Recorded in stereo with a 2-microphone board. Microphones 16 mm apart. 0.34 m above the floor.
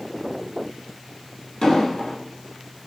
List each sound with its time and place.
1.6 s an explosion: 55° left (ahead or behind), 1.5 m